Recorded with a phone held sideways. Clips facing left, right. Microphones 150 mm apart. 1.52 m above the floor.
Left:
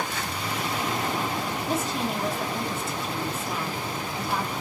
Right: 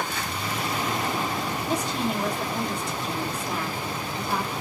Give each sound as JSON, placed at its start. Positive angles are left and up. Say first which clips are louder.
{"t": 1.7, "sound": "a woman speaking", "louder": "right 1 dB", "side_deg": 5, "distance_m": 1.0}